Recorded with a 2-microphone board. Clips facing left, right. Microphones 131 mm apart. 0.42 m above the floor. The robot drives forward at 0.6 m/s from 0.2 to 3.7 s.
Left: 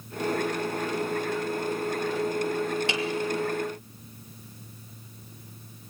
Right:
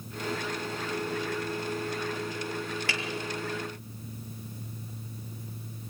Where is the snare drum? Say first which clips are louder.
Left 6 dB; 20° left (ahead or behind), 3 m.